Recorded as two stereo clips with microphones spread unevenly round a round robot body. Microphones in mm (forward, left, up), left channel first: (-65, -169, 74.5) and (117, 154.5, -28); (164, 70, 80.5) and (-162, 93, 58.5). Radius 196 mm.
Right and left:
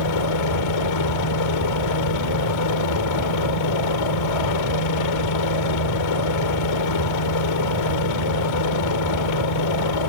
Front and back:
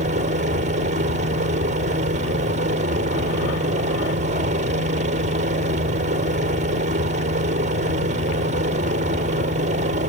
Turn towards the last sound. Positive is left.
turn(degrees=-120)